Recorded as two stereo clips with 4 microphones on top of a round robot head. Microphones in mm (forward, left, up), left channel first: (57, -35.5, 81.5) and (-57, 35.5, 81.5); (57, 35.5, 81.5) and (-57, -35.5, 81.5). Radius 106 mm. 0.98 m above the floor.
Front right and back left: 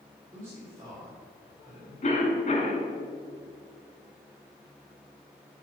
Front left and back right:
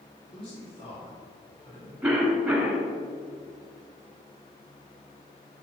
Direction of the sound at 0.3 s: 90° left.